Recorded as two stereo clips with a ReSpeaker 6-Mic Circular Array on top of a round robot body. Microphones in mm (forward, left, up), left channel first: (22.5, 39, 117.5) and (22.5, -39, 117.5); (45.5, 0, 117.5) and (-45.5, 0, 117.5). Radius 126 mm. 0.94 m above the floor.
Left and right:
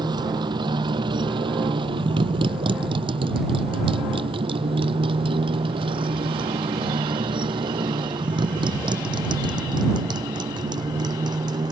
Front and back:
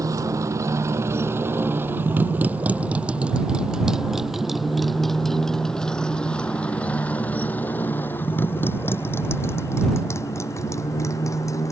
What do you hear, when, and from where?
0.0 s a motorcycle: 125° right; by 11.7 s 55° right